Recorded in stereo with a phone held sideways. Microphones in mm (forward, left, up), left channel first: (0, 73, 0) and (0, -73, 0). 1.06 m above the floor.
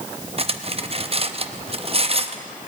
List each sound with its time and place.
0.4 s cutlery clinking: 45° right (ahead or behind), 0.6 m